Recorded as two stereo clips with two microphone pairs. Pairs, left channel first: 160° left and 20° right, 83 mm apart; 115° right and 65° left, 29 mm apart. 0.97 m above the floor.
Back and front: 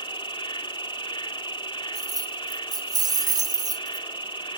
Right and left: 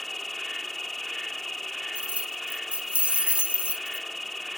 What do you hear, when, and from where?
0.0 s an insect: 160° left
1.9 s keys jangling: 20° left